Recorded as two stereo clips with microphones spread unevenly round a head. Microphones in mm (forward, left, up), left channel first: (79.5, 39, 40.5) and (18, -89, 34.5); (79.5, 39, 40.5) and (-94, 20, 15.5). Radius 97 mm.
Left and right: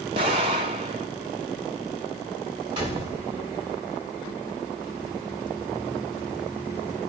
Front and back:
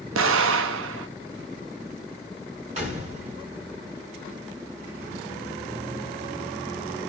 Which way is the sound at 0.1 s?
Straight behind.